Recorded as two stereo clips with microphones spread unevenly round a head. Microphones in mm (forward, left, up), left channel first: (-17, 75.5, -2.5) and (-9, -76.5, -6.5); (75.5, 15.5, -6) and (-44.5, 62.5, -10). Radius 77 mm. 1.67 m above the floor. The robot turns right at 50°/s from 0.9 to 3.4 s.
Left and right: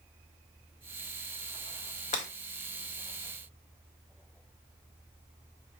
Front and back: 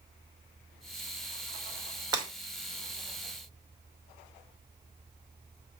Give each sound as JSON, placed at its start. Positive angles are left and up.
{"t": 2.1, "sound": "breaking glass", "azimuth_deg": 110, "distance_m": 1.8}